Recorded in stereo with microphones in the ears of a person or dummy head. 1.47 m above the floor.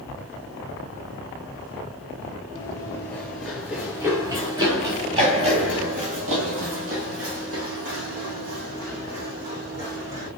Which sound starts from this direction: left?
Running footsteps, at 2.5 s.